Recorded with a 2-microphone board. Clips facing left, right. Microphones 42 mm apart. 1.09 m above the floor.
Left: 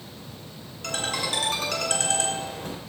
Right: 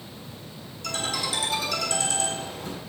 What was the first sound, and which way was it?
A ringtone, 50° left (ahead or behind).